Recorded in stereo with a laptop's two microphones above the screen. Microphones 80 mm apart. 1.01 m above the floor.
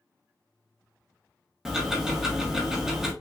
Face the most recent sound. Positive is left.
turn(degrees=-5)  # may be behind; listen again after turning